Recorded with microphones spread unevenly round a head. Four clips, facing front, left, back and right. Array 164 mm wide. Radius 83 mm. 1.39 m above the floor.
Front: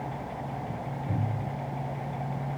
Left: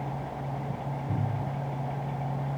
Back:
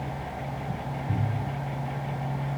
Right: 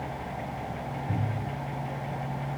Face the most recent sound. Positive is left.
No sound to turn to.